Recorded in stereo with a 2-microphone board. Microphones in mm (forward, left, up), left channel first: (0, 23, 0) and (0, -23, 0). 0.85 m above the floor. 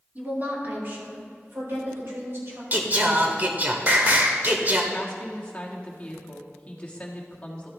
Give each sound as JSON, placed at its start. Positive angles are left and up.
{"t": 0.1, "sound": "a woman speaking", "side_deg": -35, "distance_m": 2.0}
{"t": 2.7, "sound": "singing", "side_deg": -40, "distance_m": 1.1}
{"t": 4.9, "sound": "a woman speaking", "side_deg": 25, "distance_m": 1.5}